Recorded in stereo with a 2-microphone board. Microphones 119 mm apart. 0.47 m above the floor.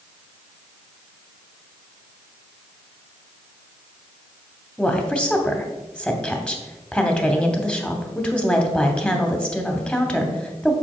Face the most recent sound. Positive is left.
turn(degrees=10)  # may be behind; listen again after turning